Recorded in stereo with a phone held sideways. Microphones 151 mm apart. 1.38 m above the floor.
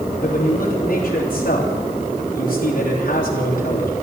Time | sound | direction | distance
0.2 | a man speaking | 65° left (ahead or behind) | 3 m